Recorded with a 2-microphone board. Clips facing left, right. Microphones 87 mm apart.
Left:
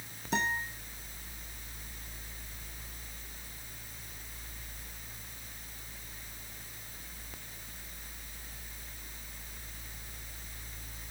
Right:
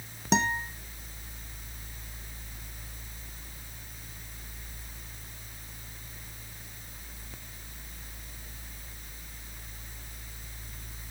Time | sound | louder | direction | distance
0.3 | a guitar | right 5 dB | 80° right | 2 m